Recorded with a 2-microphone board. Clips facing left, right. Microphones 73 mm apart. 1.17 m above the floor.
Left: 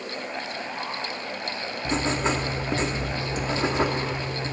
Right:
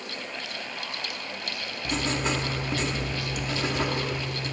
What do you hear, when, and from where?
1.9 s writing: 30° left (ahead or behind), 0.7 m